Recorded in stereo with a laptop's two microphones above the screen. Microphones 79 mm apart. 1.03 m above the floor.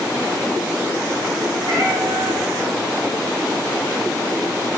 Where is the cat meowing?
65° right (ahead or behind), 1.6 m.